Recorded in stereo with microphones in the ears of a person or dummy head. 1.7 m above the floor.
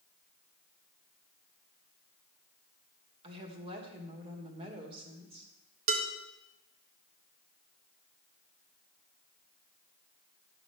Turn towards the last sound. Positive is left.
turn(degrees=-50)  # may be behind; listen again after turning